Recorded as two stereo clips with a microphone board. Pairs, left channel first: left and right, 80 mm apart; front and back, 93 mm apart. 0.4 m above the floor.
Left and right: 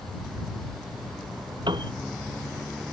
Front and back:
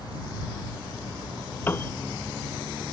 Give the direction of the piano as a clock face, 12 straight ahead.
2 o'clock.